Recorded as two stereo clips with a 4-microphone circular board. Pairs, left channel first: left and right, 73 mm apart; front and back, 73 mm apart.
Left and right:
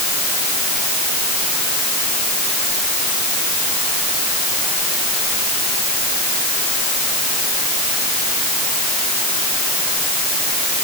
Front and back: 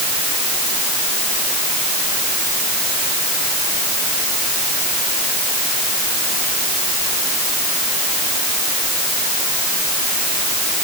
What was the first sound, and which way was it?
Only background noise.